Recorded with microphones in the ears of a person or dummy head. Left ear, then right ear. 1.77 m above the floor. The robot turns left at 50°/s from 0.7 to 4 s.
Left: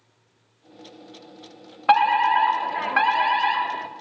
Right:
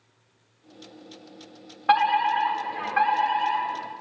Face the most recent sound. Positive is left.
turn(degrees=35)